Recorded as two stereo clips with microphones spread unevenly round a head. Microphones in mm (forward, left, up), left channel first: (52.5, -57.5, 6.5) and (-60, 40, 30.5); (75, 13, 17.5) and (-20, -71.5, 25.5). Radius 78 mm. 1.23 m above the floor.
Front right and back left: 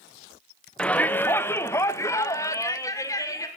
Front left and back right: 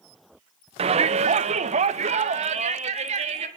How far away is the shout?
About 0.9 m.